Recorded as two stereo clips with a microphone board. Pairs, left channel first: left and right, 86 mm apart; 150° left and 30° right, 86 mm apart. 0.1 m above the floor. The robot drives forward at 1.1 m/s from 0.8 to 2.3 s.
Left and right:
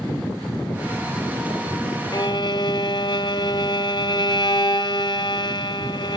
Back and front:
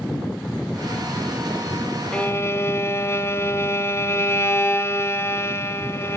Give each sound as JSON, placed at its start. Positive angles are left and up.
{"t": 2.1, "sound": "a violin", "azimuth_deg": 75, "distance_m": 0.6}